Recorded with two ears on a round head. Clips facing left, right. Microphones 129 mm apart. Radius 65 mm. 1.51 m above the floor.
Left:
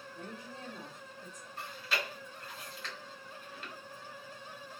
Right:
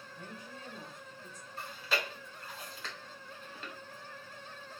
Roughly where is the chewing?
Right.